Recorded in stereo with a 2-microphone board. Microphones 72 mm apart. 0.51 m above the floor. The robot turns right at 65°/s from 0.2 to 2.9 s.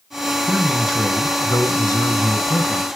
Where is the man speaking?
20° right, 2.5 m; by 2.9 s 135° left, 2.5 m.